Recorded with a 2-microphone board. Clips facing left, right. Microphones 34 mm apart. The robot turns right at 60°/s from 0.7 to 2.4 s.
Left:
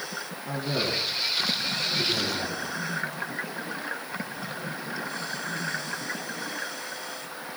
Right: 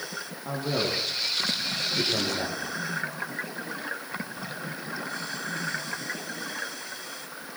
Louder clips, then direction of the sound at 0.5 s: Right 1 dB; 40° right (ahead or behind).